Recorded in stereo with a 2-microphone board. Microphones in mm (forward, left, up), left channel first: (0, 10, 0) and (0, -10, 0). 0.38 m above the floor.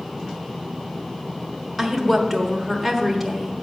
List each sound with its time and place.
1.8 s a woman speaking: 5° left (ahead or behind), 1.2 m